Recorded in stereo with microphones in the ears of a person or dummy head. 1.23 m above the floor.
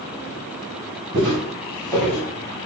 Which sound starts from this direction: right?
Footsteps, at 1.1 s.